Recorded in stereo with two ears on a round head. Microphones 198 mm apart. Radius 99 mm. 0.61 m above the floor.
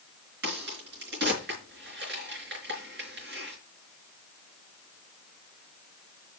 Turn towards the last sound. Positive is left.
turn(degrees=-55)  # may be behind; listen again after turning